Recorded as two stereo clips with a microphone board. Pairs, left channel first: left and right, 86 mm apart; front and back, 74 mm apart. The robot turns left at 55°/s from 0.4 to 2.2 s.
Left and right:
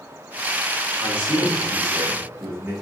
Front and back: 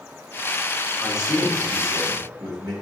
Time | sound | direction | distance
1.0 | a man speaking | 90° right | 1.3 m